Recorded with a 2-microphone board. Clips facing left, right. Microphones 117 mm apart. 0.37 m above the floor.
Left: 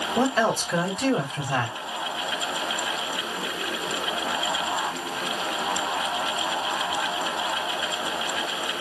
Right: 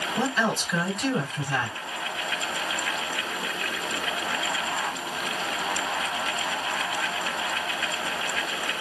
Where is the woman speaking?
55° left (ahead or behind), 2.5 m.